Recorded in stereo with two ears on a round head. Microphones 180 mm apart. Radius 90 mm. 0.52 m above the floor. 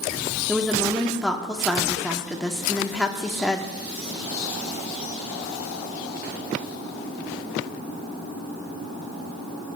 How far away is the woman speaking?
About 0.6 m.